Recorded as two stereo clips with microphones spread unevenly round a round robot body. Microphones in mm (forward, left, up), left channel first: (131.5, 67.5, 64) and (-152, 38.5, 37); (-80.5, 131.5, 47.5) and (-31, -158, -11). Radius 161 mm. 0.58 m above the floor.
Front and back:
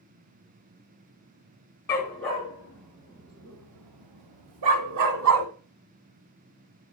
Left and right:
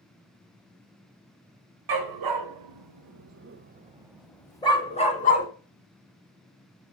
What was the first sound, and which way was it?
A dog barking, 75° right.